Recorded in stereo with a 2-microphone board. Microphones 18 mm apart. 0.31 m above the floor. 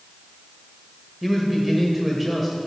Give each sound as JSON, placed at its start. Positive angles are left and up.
{"t": 1.2, "sound": "a man speaking", "side_deg": -5, "distance_m": 1.3}